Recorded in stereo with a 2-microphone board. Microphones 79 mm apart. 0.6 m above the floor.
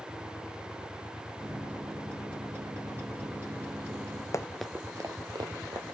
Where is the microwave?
30° right (ahead or behind), 4 m.